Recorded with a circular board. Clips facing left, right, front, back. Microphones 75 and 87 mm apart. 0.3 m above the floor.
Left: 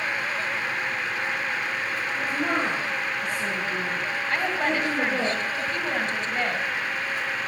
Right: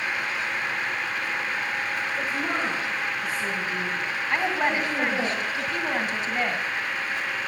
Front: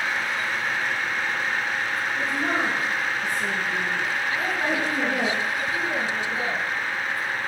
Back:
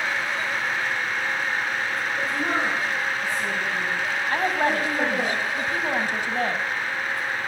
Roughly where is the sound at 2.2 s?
Left.